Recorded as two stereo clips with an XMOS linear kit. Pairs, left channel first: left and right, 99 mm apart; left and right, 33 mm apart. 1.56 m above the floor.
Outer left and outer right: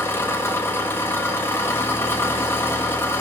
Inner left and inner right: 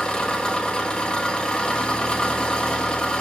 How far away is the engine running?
About 1.3 m.